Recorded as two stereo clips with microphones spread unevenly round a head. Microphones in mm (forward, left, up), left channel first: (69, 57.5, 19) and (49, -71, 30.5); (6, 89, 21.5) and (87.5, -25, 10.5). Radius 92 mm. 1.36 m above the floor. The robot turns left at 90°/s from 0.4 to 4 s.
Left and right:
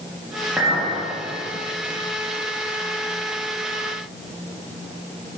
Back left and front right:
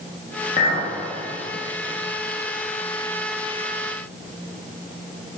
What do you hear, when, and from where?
0.6 s a clink: 175° left, 1.4 m; by 0.9 s 145° left, 1.4 m